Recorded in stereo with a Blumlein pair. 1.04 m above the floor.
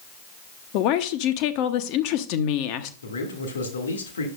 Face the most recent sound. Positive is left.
turn(degrees=65)